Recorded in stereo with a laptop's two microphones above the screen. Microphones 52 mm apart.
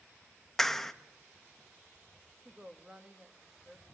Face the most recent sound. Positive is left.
turn(degrees=-15)  # may be behind; listen again after turning